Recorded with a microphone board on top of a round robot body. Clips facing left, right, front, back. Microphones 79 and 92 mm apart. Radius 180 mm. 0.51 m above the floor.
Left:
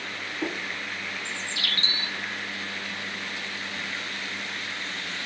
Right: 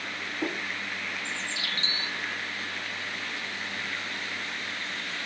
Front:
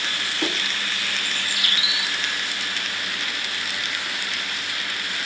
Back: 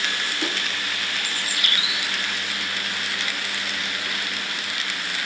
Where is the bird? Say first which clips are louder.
Left 1 dB, even; 125° left, 0.7 m.